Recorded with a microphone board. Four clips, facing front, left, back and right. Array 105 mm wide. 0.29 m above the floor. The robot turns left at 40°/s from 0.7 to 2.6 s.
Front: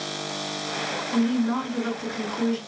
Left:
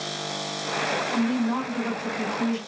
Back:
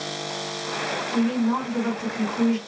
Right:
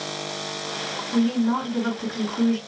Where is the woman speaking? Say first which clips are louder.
Right 5 dB, even; 125° right, 2 m; by 2.6 s straight behind, 2 m.